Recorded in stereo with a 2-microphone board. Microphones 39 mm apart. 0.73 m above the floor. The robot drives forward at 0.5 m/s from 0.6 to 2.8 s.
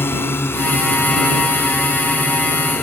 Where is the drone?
75° left (ahead or behind); by 2.8 s 80° left.